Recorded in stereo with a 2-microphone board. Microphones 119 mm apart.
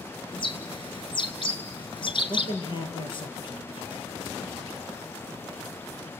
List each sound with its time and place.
0.3 s a bird: 45° left (ahead or behind), 1.8 m
2.3 s a man speaking: 45° left (ahead or behind), 5 m